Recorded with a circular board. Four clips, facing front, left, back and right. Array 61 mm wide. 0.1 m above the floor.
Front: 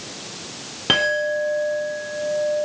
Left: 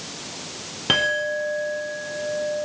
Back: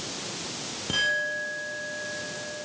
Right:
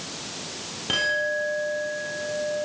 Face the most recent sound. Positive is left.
turn(degrees=30)